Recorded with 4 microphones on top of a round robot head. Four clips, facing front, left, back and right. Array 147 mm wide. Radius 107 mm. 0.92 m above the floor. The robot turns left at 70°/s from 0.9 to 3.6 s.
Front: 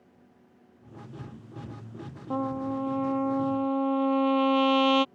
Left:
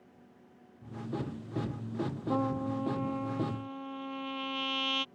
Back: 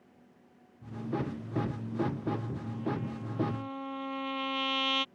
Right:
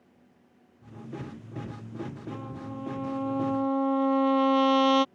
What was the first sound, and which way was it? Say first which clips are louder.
A trumpet: left 7 dB, front 8 dB; 45° left.